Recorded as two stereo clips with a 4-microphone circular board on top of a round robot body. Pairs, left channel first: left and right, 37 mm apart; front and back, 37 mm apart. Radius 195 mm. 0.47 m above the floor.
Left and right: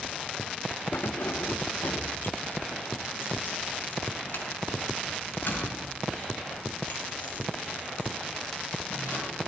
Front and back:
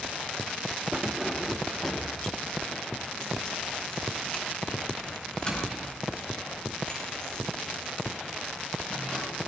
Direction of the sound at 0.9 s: 110° left.